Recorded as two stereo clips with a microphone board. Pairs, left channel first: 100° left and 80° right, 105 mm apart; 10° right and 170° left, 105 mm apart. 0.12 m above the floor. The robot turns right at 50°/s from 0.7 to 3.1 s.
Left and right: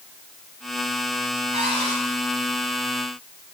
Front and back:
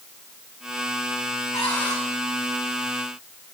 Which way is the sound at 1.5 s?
70° right.